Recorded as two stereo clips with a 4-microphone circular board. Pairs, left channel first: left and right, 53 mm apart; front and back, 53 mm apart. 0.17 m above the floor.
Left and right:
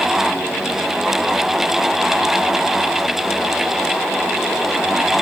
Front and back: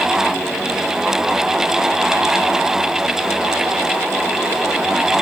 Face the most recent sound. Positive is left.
No sound to turn to.